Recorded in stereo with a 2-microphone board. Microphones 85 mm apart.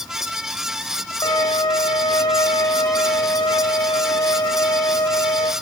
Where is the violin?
55° left (ahead or behind), 1.6 m.